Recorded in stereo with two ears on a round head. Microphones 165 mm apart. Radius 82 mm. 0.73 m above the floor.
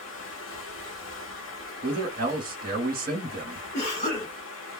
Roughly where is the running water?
Left.